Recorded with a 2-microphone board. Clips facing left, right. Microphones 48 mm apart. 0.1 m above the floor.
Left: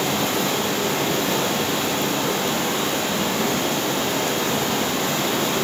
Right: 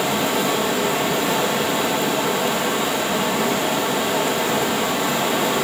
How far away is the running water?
About 0.9 m.